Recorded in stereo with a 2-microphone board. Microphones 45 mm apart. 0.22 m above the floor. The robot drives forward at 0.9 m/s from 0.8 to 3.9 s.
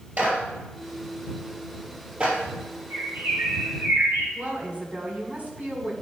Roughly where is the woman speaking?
Right.